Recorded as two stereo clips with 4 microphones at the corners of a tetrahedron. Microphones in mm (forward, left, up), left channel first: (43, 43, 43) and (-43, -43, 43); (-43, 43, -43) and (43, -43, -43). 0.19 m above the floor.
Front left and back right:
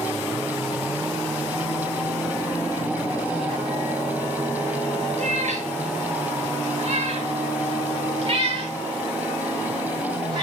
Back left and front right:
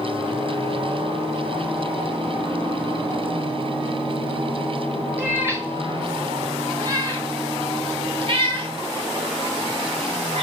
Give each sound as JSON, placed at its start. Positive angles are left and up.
{"t": 5.2, "sound": "a cat meowing", "azimuth_deg": -120, "distance_m": 2.5}